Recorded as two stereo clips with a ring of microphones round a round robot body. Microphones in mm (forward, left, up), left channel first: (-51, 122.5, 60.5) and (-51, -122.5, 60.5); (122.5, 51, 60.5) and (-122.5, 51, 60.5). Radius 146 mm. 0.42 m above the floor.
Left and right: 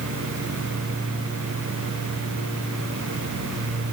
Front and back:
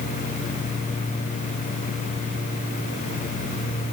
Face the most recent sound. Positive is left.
No sound to turn to.